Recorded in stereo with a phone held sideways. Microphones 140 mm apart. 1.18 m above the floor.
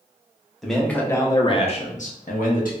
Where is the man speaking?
Centre (ahead or behind), 0.7 m; by 2.7 s 80° left, 0.8 m.